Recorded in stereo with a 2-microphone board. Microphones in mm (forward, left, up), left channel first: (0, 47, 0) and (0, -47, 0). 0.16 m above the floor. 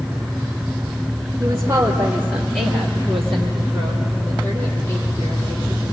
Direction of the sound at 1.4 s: 35° right (ahead or behind).